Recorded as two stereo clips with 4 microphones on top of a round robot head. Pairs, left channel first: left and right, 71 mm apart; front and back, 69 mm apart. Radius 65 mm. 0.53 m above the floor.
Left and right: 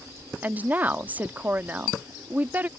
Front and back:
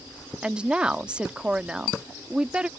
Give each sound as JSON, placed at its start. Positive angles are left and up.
{"t": 0.4, "sound": "a woman speaking", "azimuth_deg": -125}